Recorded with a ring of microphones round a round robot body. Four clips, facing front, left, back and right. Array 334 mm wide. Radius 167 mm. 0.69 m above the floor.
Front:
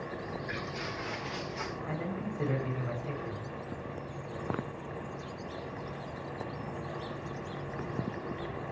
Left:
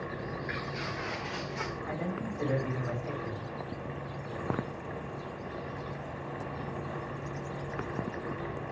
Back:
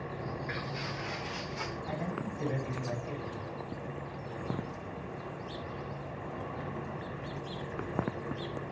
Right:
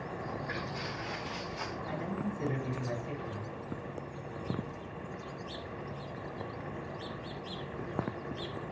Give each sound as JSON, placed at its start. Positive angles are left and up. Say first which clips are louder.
{"t": 0.2, "sound": "footsteps", "louder": "left 1 dB, even", "azimuth_deg": 75, "distance_m": 5.5}
{"t": 1.9, "sound": "a man speaking", "louder": "right 1 dB, even", "azimuth_deg": 50, "distance_m": 4.5}